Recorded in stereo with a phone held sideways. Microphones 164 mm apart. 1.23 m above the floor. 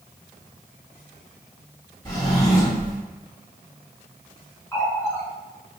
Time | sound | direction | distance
2.0 | a drawer | 15° left (ahead or behind) | 1.9 m
4.7 | a running tap | 15° left (ahead or behind) | 1.3 m